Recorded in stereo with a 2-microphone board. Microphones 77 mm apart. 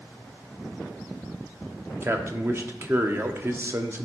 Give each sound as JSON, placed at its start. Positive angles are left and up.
{"t": 2.0, "sound": "a man speaking", "side_deg": -30, "distance_m": 0.8}